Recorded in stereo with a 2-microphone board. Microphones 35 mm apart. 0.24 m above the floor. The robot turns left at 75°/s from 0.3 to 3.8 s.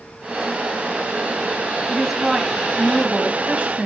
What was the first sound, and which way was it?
A woman speaking, 15° left.